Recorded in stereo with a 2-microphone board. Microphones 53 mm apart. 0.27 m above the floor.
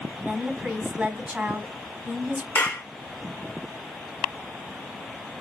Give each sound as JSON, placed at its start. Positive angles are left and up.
{"t": 0.2, "sound": "a woman speaking", "side_deg": -15, "distance_m": 2.0}
{"t": 2.5, "sound": "a clap", "side_deg": 50, "distance_m": 2.5}